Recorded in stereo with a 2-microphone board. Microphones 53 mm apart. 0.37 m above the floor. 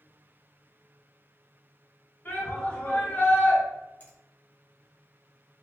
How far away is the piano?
I don't hear a piano.